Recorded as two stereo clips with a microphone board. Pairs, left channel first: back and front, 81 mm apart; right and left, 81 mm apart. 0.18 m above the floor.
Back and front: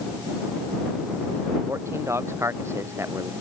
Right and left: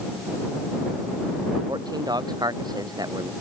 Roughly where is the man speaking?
Ahead left.